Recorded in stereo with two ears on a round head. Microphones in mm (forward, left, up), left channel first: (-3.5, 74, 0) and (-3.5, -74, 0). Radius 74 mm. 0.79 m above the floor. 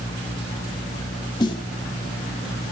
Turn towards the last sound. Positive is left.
turn(degrees=30)  # may be behind; listen again after turning